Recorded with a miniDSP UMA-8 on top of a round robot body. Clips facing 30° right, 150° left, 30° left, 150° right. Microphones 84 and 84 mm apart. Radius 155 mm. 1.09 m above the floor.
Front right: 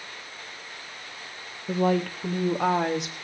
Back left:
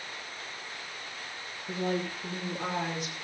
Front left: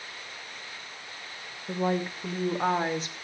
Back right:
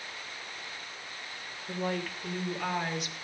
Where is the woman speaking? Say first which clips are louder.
Front right 8 dB, front left 5 dB; 40° right, 2 m; by 3.1 s 25° right, 3 m.